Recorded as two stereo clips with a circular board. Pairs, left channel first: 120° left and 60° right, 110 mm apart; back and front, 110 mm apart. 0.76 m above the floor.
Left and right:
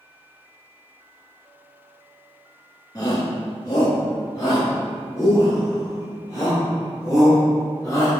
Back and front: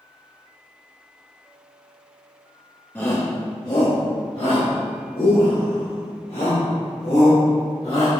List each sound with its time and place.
3.0 s a shout: 125° left, 1.2 m; by 8.1 s straight behind, 4.5 m